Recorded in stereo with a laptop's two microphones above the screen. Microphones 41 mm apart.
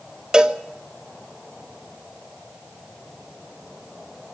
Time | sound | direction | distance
0.3 | a cowbell | 20° right (ahead or behind) | 1.2 m